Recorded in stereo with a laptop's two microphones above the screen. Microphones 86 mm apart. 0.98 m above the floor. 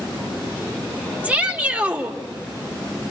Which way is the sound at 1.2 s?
20° right (ahead or behind).